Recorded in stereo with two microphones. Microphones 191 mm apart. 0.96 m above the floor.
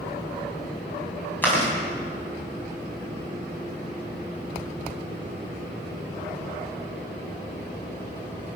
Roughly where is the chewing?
Centre.